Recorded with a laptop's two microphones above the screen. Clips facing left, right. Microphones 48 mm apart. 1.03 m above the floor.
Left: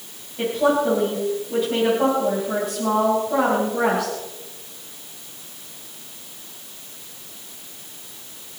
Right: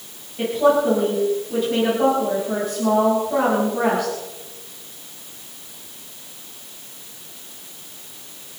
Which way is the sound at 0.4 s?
5° left (ahead or behind).